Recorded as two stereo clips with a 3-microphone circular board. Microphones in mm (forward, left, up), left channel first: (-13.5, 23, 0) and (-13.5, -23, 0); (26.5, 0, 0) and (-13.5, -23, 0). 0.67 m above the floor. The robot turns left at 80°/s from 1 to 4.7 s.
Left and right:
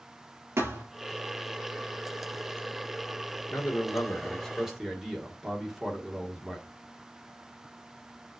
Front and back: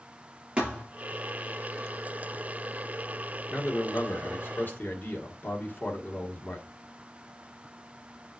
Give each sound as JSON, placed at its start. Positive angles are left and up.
{"t": 0.6, "sound": "a thud", "azimuth_deg": -85, "distance_m": 3.0}
{"t": 3.5, "sound": "a man speaking", "azimuth_deg": 85, "distance_m": 1.7}